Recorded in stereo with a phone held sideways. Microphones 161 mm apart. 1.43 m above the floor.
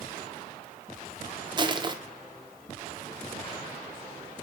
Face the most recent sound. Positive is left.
turn(degrees=-30)  # may be behind; listen again after turning